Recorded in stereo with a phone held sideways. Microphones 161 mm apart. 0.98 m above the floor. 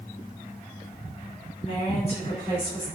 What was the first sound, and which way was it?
A woman speaking, 45° left (ahead or behind).